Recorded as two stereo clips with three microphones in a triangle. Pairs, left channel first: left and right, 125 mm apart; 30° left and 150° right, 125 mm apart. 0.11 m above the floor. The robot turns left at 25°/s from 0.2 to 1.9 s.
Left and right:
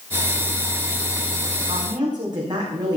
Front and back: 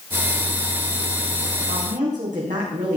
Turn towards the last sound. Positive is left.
turn(degrees=-145)